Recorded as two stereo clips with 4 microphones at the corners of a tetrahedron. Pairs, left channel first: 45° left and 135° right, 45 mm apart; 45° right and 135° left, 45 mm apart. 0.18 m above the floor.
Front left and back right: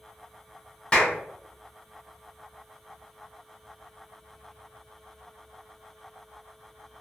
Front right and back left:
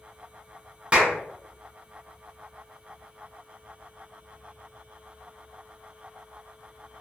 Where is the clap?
95° left, 0.9 m.